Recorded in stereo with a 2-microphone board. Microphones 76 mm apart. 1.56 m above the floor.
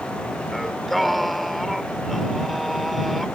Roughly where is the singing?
Centre.